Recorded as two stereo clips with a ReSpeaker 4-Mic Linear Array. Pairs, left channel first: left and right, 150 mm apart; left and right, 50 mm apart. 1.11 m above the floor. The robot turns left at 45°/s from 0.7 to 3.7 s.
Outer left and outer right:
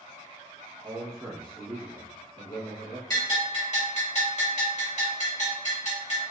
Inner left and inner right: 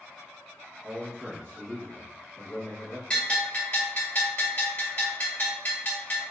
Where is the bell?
25° left (ahead or behind), 2 m; by 6.2 s 50° left (ahead or behind), 2 m.